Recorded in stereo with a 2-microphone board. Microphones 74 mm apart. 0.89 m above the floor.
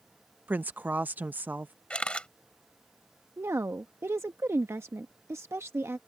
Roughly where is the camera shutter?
Centre.